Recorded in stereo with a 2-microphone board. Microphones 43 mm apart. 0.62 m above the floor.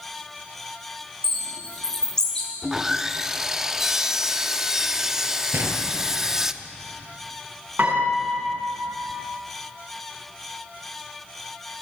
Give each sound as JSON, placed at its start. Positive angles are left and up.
{"t": 1.2, "sound": "a bird", "side_deg": 15, "distance_m": 5.5}
{"t": 2.6, "sound": "sawing", "side_deg": -10, "distance_m": 0.7}
{"t": 5.5, "sound": "a gunshot", "side_deg": -55, "distance_m": 3.0}
{"t": 7.8, "sound": "a piano", "side_deg": -45, "distance_m": 5.5}